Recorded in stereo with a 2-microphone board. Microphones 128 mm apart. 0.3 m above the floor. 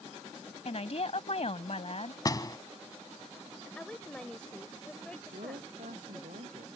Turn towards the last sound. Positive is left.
turn(degrees=-85)